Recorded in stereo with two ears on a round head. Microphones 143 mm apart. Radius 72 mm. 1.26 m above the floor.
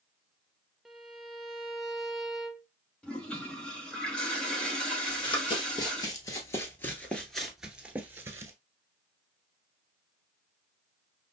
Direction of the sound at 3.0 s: 5° left (ahead or behind).